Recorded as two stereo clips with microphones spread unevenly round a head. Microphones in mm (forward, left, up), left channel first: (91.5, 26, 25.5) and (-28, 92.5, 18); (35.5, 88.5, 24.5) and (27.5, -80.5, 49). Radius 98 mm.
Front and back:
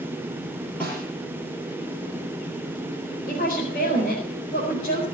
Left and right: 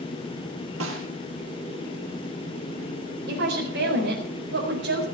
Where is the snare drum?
110° right, 6 m.